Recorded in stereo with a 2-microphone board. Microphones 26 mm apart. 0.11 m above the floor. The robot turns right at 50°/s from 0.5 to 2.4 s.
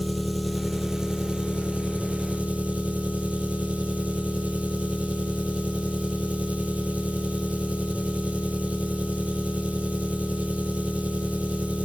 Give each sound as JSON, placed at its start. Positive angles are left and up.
{"t": 0.0, "sound": "an engine running", "azimuth_deg": 180, "distance_m": 1.4}